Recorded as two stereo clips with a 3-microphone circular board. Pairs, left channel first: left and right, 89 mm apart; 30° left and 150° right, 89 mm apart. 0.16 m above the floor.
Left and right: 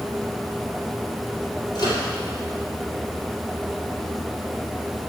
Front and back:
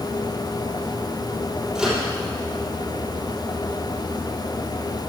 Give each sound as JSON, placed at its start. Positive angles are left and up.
{"t": 1.8, "sound": "a microwave", "azimuth_deg": 125, "distance_m": 4.5}